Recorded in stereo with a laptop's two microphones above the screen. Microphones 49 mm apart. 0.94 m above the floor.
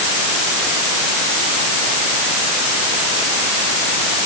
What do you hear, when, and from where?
Only background noise.